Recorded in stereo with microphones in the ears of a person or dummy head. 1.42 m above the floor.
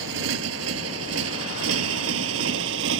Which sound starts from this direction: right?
A motorcycle, at 0.0 s.